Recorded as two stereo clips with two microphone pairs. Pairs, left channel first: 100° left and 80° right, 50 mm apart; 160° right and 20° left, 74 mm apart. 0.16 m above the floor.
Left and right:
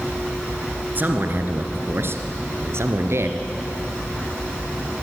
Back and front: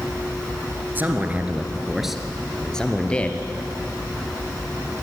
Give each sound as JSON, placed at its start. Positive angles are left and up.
{"t": 0.9, "sound": "a man speaking", "azimuth_deg": -40, "distance_m": 2.5}